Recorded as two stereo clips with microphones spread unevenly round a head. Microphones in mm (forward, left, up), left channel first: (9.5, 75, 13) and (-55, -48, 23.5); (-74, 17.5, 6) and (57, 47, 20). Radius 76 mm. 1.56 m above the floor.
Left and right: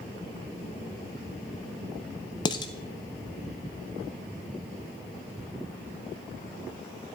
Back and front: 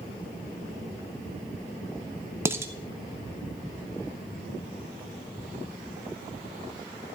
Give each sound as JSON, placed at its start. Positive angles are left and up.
{"t": 2.5, "sound": "dishes clattering", "azimuth_deg": 35, "distance_m": 0.6}